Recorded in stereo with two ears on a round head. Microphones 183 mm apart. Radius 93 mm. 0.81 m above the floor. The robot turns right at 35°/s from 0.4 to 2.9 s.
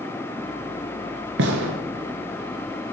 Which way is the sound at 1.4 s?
70° right (ahead or behind).